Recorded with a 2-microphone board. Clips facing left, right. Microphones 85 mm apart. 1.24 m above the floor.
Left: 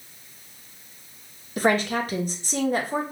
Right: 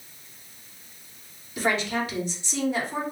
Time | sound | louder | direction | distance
1.6 | a woman speaking | left 4 dB | 40° left (ahead or behind) | 0.9 m